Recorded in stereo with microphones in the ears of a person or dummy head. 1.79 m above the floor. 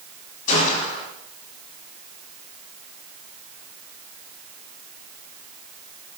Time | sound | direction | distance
0.5 | a gunshot | 45° left (ahead or behind) | 3 m